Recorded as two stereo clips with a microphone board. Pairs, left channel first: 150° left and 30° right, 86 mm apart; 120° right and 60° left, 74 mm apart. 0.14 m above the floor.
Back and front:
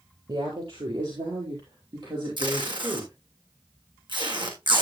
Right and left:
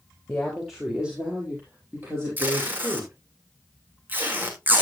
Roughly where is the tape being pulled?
Ahead.